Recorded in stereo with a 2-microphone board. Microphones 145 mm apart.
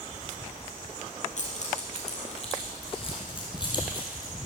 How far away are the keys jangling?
About 2.5 m.